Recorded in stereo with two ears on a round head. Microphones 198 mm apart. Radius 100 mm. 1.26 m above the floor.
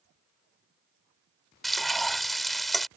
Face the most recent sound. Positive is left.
turn(degrees=0)  # may be behind; listen again after turning